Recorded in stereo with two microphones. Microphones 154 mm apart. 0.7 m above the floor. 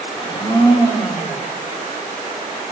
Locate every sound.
0.1 s a blender: 30° left (ahead or behind), 0.7 m